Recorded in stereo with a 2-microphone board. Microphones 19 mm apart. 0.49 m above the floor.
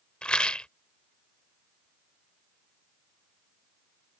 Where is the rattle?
70° left (ahead or behind).